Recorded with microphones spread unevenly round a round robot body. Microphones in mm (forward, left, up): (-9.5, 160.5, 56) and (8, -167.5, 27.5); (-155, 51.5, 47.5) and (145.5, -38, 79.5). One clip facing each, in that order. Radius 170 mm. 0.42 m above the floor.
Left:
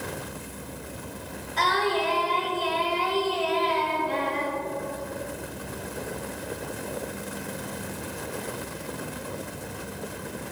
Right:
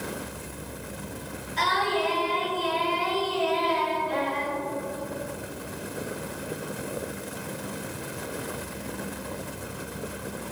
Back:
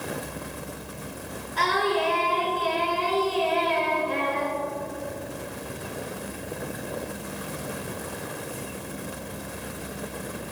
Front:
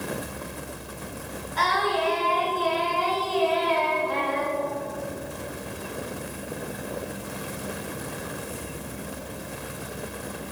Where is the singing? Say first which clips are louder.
Left 2 dB, back 2 dB; 110° left, 7 m.